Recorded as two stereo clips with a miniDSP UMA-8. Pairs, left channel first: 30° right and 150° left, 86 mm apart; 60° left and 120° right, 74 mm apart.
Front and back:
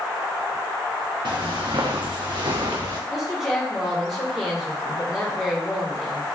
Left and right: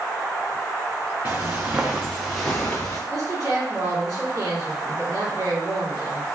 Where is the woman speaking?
130° right, 1.9 m.